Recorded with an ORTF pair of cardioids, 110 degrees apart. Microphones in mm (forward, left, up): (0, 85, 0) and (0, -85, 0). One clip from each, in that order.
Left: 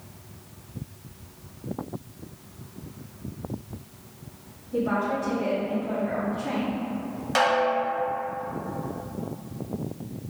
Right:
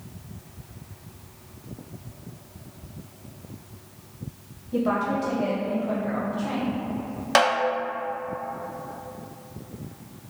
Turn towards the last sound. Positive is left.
turn(degrees=-35)